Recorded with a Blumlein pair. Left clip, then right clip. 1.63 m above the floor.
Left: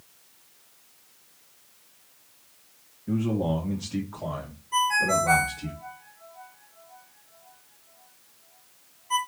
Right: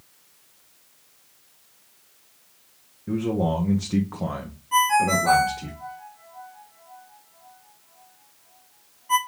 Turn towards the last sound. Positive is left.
turn(degrees=-45)